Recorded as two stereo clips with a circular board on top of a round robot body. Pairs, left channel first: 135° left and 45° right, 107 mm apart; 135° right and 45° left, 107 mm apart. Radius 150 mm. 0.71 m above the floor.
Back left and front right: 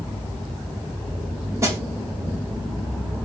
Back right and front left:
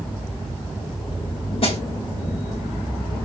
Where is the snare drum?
110° right, 4.5 m.